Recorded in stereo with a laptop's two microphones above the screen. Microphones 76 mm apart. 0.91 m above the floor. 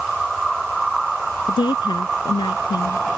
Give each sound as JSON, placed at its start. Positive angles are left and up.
{"t": 1.5, "sound": "a woman speaking", "side_deg": 85}